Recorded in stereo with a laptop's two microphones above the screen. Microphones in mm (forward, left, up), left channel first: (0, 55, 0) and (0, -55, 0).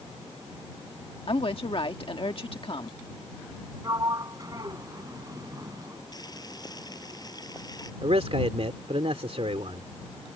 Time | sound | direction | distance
1.3 | a woman speaking | 55° left (ahead or behind) | ?
3.8 | a sliding door | 35° right (ahead or behind) | ?
6.1 | boiling | 35° left (ahead or behind) | ?
8.0 | a man speaking | 65° right (ahead or behind) | ?